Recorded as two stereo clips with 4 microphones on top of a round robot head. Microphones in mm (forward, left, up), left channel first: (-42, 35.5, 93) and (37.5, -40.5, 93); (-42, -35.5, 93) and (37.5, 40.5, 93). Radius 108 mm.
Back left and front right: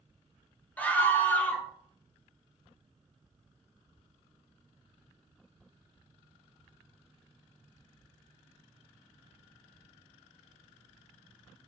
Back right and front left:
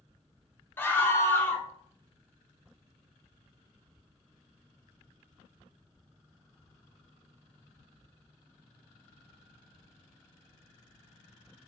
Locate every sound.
0.8 s a scream: 170° right, 1.2 m